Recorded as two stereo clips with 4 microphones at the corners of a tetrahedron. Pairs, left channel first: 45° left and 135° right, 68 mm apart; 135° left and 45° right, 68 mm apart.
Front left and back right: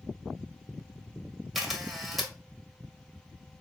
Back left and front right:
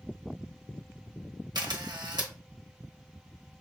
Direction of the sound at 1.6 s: 45° right.